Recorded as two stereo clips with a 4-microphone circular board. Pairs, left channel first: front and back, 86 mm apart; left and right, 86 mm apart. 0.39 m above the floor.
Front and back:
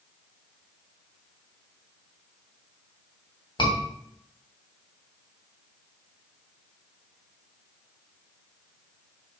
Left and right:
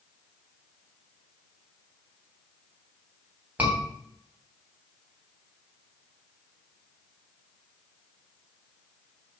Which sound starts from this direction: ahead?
A scream, at 3.6 s.